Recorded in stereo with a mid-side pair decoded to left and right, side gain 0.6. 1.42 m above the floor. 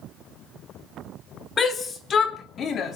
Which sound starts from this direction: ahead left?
A shout, at 1.6 s.